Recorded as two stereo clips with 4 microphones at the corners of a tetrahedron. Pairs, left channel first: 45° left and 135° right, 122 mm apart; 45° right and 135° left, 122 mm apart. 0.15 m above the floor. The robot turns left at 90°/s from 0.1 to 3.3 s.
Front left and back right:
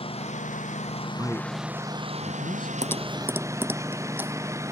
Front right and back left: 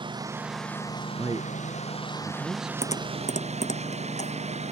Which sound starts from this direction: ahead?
Typing on a keyboard, at 2.8 s.